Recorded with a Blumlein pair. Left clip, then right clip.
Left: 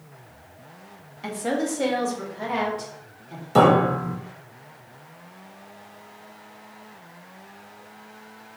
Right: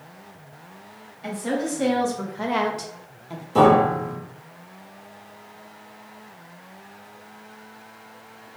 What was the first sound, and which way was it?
A woman speaking, 25° left.